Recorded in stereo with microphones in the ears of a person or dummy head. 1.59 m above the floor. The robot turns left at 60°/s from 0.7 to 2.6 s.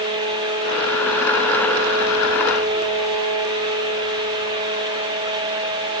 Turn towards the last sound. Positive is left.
No sound to turn to.